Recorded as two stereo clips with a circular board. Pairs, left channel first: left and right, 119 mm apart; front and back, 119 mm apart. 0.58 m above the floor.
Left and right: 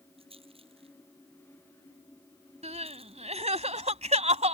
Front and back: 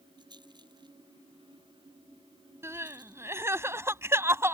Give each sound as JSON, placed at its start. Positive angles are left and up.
{"t": 0.2, "sound": "a rattle", "azimuth_deg": -130}
{"t": 2.6, "sound": "crying", "azimuth_deg": -110}